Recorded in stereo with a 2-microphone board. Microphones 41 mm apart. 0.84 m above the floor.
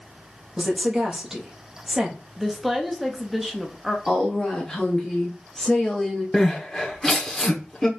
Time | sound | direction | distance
0.6 | a woman speaking | 15° right (ahead or behind) | 1.1 m
2.4 | a woman speaking | centre (ahead or behind) | 0.9 m
4.1 | a woman speaking | 15° left (ahead or behind) | 1.4 m
6.3 | crying | 10° left (ahead or behind) | 1.1 m